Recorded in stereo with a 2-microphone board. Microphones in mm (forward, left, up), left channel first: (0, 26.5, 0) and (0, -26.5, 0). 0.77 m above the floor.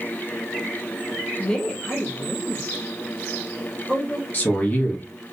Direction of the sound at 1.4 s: 20° left (ahead or behind).